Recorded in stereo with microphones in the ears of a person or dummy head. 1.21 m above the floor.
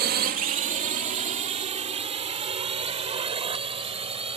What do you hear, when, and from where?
0.0 s a drone: 45° right (ahead or behind); by 4.4 s 35° right (ahead or behind)